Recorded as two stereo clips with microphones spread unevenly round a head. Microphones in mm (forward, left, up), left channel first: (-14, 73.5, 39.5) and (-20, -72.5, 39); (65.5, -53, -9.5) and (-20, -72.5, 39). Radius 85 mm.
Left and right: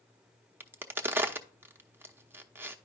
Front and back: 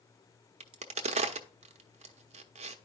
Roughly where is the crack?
Behind.